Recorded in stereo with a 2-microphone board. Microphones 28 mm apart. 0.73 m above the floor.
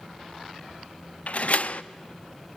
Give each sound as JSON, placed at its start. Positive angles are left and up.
{"t": 1.3, "sound": "a door slam", "side_deg": 55, "distance_m": 0.5}